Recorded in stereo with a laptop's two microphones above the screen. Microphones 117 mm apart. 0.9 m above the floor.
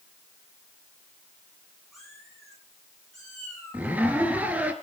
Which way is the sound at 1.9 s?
Centre (ahead or behind).